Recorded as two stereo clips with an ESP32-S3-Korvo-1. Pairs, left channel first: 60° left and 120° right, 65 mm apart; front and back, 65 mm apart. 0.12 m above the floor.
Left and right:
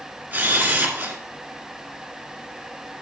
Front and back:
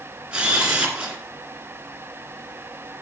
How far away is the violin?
No violin in this recording.